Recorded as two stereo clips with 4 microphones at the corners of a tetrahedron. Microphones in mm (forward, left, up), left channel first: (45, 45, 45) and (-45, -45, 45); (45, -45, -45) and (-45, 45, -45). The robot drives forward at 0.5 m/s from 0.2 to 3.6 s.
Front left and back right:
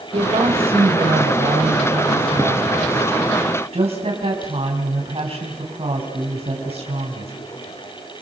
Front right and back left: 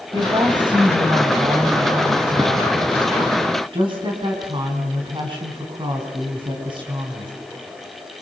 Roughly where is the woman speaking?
Behind.